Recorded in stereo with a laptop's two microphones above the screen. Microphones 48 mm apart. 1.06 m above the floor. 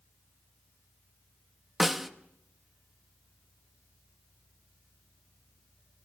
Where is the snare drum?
5° right (ahead or behind), 0.9 m.